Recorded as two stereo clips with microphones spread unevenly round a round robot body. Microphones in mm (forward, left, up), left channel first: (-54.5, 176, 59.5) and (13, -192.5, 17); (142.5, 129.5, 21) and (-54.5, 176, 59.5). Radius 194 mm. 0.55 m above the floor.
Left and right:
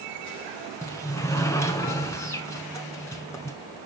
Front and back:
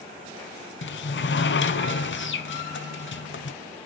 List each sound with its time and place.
0.8 s a sliding door: 20° left, 0.9 m